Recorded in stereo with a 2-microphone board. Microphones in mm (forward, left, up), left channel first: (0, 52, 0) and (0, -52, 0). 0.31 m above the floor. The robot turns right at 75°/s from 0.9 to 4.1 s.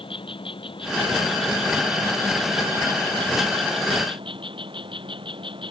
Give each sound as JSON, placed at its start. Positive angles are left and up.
{"t": 0.0, "sound": "an insect", "azimuth_deg": 60}